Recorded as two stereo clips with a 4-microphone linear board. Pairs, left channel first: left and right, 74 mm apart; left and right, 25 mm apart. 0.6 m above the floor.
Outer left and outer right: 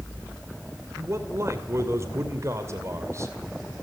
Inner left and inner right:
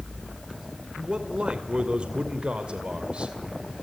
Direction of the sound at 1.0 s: 40° right (ahead or behind).